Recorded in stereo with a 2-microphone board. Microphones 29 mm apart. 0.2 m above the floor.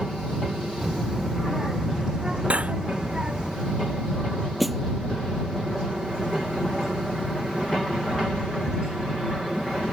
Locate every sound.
0.8 s a child speaking: 10° right (ahead or behind); by 3.5 s 30° right (ahead or behind)
2.5 s cutlery clinking: 50° right (ahead or behind)
4.6 s a snare drum: centre (ahead or behind)